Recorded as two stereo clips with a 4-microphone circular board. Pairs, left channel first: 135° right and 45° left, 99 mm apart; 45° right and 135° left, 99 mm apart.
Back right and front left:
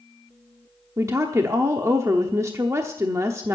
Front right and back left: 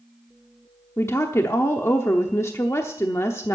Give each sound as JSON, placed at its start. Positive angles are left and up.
{"t": 1.0, "sound": "a woman speaking", "azimuth_deg": 0, "distance_m": 0.9}